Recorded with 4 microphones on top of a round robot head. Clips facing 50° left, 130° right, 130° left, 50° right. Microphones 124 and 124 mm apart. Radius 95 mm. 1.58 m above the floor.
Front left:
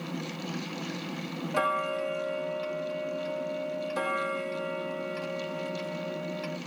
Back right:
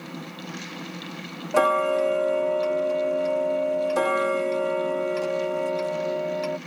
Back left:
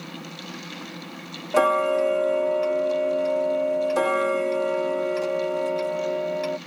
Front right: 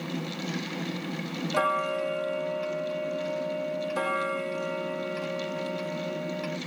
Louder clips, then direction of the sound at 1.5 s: Back right 9 dB, back left 8 dB; straight behind.